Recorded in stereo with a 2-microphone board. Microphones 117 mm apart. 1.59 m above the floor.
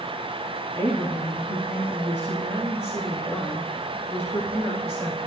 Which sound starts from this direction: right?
A woman speaking, at 0.8 s.